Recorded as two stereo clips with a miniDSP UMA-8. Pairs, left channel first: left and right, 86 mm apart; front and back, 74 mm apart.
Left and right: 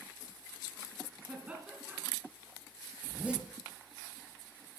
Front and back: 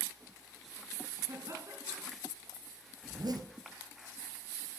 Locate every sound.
1.3 s laughter: 160° right, 2 m
3.0 s a zipper: 165° right, 1.8 m